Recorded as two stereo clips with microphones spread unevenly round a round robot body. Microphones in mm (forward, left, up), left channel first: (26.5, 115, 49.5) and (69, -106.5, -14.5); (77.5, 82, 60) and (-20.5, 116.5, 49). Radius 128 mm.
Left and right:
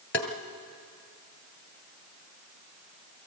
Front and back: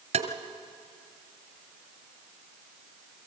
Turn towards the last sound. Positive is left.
turn(degrees=-175)